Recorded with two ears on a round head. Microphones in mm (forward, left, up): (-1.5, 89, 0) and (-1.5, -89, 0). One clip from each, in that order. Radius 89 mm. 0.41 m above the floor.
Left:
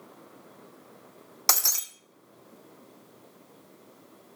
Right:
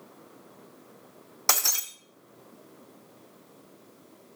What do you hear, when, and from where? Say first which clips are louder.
1.5 s breaking glass: even; 15° left (ahead or behind), 0.9 m